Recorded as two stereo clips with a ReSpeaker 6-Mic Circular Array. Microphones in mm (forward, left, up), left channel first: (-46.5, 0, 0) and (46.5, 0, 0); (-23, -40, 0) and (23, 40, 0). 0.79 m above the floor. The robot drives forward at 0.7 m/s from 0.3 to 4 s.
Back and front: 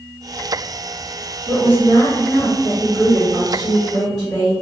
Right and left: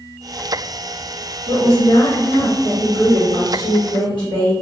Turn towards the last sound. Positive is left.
turn(degrees=-145)